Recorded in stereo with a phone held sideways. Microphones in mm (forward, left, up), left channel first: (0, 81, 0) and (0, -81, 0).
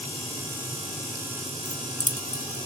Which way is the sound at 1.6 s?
50° left (ahead or behind).